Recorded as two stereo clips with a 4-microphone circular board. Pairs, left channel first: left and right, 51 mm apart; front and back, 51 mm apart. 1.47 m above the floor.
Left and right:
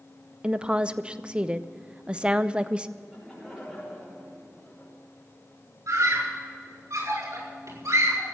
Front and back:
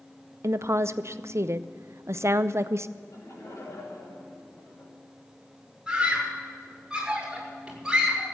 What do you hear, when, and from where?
0.4 s a woman speaking: 160° right, 0.6 m
3.0 s laughter: straight ahead, 6 m
5.9 s a scream: 100° right, 6 m